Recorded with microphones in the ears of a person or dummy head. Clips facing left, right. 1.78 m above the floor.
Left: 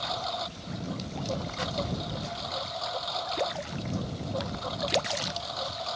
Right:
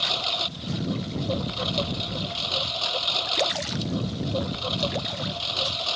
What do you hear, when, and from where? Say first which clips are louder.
0.0 s a lawn mower: right 1 dB; 40° right (ahead or behind)